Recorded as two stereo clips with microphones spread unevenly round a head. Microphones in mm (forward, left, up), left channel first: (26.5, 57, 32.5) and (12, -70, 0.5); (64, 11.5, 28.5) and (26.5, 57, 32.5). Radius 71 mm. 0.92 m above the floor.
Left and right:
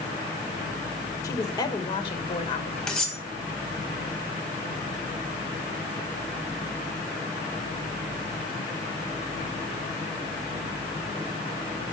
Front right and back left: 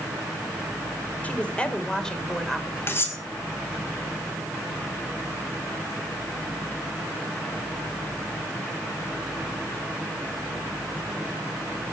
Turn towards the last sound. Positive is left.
turn(degrees=0)